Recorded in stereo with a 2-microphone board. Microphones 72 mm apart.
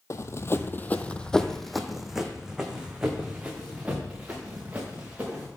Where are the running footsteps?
45° left (ahead or behind), 0.6 m; by 5.5 s 20° right (ahead or behind), 2.5 m.